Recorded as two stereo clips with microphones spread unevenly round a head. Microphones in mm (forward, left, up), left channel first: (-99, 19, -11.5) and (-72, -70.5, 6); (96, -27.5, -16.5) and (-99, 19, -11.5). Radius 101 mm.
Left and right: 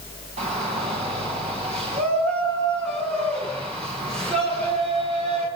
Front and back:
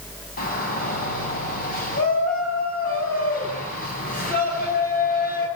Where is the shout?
65° right, 6 m.